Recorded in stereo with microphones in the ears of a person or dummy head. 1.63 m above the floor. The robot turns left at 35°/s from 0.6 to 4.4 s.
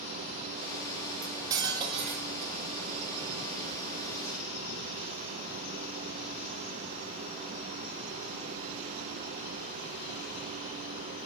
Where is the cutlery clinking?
10° right, 1.4 m; by 2.5 s 55° right, 1.4 m.